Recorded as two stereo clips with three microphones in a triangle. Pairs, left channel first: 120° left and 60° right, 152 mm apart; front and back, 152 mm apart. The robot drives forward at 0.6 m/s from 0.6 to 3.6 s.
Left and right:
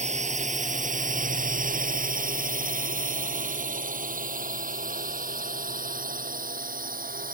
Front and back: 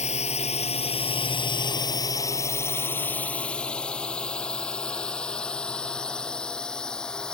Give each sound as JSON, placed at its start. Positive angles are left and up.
{"t": 0.0, "sound": "a drone", "azimuth_deg": -30}